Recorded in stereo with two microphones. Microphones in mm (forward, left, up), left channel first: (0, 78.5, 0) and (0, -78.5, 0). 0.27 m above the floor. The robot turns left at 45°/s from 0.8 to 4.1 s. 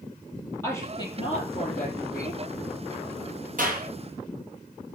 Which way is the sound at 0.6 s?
165° left.